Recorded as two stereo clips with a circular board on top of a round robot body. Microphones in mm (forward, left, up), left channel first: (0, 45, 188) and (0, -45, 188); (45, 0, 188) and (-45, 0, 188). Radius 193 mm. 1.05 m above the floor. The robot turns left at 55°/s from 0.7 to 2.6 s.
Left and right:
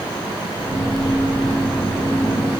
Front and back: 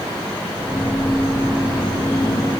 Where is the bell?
No bell in this recording.